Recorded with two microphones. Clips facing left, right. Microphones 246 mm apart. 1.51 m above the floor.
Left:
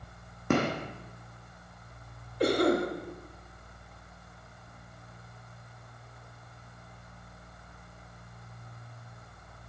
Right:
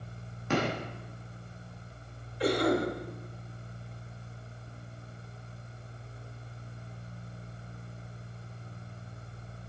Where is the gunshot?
55° left (ahead or behind), 1.7 m.